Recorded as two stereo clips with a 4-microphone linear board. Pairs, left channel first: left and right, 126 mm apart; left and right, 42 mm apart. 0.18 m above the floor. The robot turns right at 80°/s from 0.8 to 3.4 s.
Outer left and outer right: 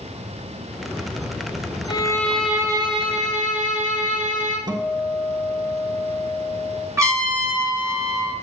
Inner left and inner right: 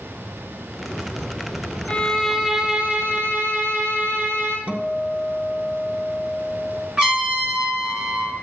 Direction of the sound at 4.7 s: 35° right (ahead or behind).